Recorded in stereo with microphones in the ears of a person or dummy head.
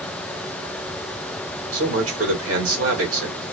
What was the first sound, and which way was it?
A man speaking, 70° right (ahead or behind).